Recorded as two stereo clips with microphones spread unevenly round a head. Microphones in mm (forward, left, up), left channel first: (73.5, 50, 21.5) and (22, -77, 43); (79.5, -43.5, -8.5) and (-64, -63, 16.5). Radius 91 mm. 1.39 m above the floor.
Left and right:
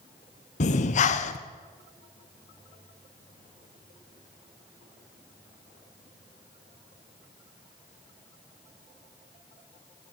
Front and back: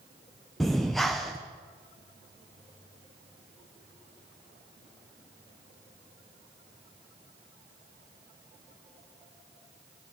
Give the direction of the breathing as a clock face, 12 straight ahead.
9 o'clock.